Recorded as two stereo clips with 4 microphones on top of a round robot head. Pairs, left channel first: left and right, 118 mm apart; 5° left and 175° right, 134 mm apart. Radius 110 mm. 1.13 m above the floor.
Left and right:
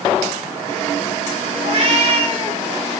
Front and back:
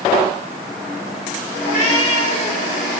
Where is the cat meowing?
50° right, 3.5 m; by 2.6 s 55° right, 2.5 m.